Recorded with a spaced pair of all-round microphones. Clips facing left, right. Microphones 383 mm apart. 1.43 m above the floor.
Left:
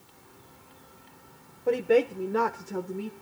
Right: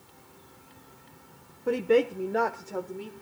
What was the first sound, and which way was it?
A woman speaking, 20° right (ahead or behind).